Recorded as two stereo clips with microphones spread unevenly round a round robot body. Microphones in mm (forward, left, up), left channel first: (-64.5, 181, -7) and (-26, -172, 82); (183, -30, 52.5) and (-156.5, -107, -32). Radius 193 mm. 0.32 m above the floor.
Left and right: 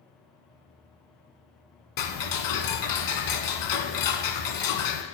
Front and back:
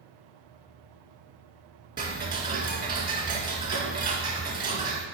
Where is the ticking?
120° left, 1.6 m.